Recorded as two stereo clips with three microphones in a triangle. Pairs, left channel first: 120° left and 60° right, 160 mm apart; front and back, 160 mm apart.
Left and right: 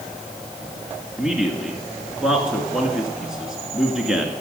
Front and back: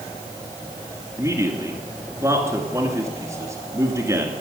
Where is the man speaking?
140° right, 1.7 m.